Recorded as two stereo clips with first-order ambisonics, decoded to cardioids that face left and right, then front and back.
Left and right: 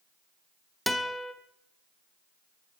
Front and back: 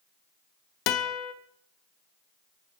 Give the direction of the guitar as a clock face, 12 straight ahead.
12 o'clock.